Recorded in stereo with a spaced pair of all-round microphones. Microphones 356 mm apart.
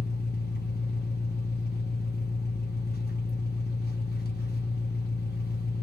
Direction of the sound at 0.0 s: 30° left (ahead or behind).